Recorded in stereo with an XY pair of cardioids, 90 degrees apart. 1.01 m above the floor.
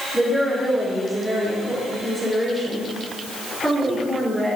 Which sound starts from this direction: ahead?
A woman speaking, at 0.1 s.